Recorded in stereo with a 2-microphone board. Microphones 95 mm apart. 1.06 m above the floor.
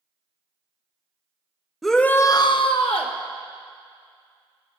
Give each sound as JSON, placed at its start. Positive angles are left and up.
{"t": 1.8, "sound": "a shout", "side_deg": 0, "distance_m": 0.8}